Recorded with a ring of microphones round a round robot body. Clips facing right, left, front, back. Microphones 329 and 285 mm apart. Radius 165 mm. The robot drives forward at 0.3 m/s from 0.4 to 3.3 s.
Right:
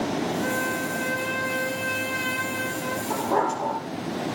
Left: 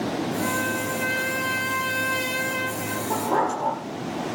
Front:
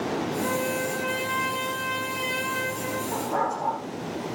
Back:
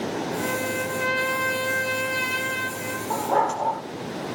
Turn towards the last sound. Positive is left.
turn(degrees=180)